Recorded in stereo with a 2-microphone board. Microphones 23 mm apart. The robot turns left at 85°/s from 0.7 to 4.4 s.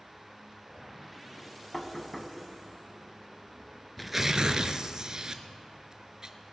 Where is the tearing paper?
Straight ahead, 0.7 m; by 6.3 s 35° right, 0.7 m.